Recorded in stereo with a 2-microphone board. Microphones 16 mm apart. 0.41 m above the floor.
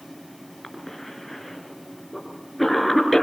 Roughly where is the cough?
Centre.